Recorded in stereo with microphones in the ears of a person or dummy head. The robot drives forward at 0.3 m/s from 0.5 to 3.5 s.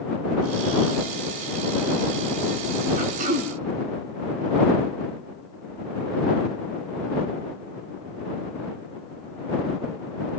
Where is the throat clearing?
50° right (ahead or behind), 1.7 m.